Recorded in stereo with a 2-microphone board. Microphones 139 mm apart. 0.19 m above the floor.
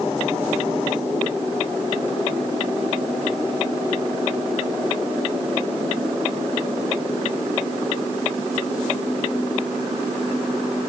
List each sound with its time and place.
Only background noise.